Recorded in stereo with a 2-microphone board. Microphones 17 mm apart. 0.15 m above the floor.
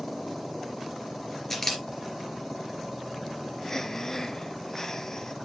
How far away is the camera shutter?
About 2.5 m.